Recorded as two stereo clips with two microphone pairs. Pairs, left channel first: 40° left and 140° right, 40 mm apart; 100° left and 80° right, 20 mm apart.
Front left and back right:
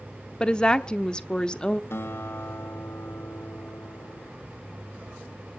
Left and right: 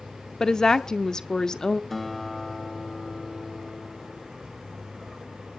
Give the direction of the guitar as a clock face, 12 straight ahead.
11 o'clock.